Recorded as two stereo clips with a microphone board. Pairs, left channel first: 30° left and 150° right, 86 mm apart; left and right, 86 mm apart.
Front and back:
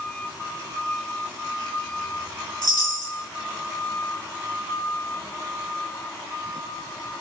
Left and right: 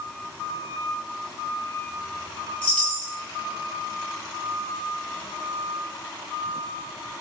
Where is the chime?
20° left, 1.2 m.